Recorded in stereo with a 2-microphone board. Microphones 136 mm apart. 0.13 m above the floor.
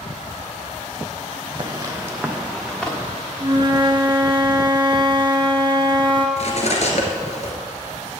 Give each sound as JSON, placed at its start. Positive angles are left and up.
{"t": 1.6, "sound": "footsteps", "side_deg": -30, "distance_m": 1.7}
{"t": 3.4, "sound": "a flute", "side_deg": -35, "distance_m": 0.9}
{"t": 6.4, "sound": "cutlery clinking", "side_deg": 55, "distance_m": 1.5}